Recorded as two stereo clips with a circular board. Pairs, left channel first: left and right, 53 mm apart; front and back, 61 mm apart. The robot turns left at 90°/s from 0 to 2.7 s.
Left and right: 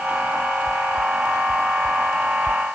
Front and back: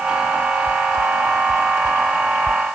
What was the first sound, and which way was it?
Only background noise.